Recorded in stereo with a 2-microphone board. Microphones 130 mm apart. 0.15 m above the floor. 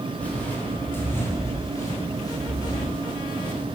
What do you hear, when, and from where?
0.2 s footsteps: 10° left (ahead or behind), 6.5 m; by 3.6 s 40° left (ahead or behind), 7.5 m